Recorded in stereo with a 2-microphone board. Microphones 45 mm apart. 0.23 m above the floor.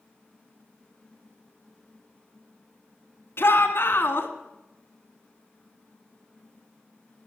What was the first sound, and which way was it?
A shout, 55° left (ahead or behind).